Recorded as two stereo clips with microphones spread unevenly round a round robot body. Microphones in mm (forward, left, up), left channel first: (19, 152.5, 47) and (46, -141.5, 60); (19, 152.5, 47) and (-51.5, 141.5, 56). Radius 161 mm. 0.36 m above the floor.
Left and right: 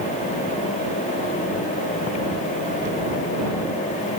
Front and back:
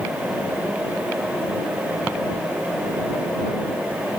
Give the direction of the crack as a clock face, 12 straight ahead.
No crack in this recording.